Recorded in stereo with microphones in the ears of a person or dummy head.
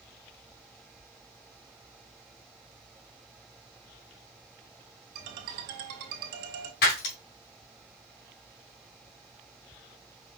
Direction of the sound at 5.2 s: 55° right (ahead or behind).